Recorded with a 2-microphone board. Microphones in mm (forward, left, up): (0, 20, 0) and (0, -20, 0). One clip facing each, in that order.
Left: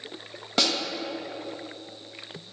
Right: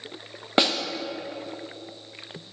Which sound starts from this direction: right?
A snare drum, at 0.6 s.